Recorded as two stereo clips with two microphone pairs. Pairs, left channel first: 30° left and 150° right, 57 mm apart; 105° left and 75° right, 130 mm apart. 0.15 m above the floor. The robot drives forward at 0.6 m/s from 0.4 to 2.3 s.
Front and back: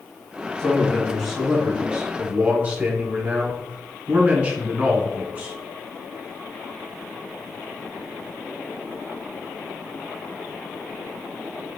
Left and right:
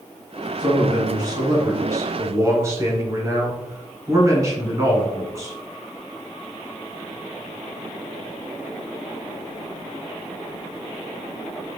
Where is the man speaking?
45° right, 1.5 m; by 5.6 s 115° right, 1.3 m.